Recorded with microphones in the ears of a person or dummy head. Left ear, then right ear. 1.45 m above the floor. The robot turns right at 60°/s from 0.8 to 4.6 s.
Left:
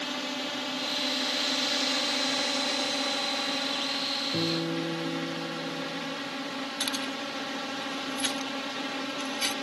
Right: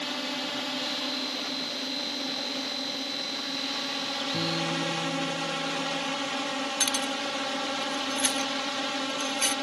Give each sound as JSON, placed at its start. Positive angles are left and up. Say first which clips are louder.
{"t": 0.0, "sound": "a drone", "louder": "right 1 dB", "side_deg": -5}
{"t": 4.3, "sound": "a guitar", "louder": "right 1 dB", "side_deg": 40}
{"t": 6.8, "sound": "keys jangling", "louder": "right 3 dB", "side_deg": -15}